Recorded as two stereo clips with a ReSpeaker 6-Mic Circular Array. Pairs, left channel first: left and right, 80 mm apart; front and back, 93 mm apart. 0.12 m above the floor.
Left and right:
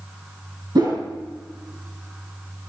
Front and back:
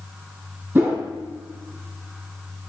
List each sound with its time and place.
0.8 s a whoosh: 110° right, 4 m